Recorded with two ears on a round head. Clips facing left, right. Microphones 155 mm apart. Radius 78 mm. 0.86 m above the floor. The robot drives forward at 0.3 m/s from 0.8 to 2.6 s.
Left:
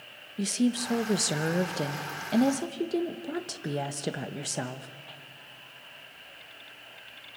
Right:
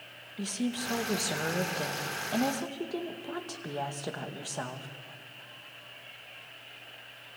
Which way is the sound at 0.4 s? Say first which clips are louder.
Left 6 dB; 25° left (ahead or behind).